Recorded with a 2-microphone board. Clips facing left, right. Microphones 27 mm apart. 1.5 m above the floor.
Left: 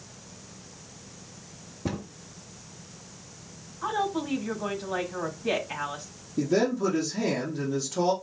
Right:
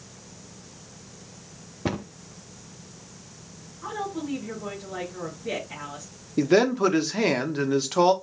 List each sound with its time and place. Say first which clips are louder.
1.9 s a cupboard door: right 4 dB; 50° right (ahead or behind), 0.7 m
3.8 s a woman speaking: left 3 dB; 70° left (ahead or behind), 2.5 m
6.4 s a man speaking: right 5 dB; 80° right, 0.9 m